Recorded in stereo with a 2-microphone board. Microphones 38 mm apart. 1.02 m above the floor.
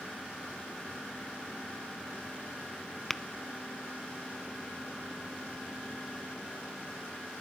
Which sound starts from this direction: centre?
Tapping, at 3.1 s.